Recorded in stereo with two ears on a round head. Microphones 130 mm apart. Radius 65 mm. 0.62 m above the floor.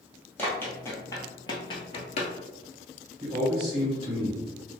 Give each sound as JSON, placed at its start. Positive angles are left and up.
{"t": 0.4, "sound": "running footsteps", "side_deg": 10, "distance_m": 1.1}
{"t": 3.2, "sound": "a man speaking", "side_deg": -35, "distance_m": 1.8}